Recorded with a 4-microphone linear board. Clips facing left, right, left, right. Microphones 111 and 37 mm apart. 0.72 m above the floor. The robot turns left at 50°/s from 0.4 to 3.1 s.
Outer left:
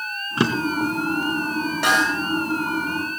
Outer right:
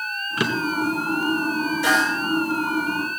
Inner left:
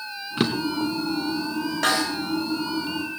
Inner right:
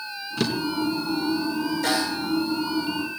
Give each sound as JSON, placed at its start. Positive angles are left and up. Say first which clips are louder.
{"t": 0.4, "sound": "a drawer", "louder": "outer left 2 dB, inner left 1 dB", "side_deg": 30, "distance_m": 1.6}
{"t": 1.8, "sound": "a snare drum", "louder": "outer left 1 dB, inner left 4 dB", "side_deg": 75, "distance_m": 4.0}